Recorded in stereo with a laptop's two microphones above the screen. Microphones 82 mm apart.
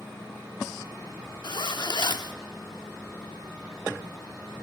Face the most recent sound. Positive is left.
turn(degrees=65)  # may be behind; listen again after turning